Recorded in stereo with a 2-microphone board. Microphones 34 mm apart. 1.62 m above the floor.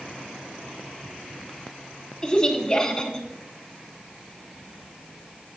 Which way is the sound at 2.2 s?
25° left (ahead or behind).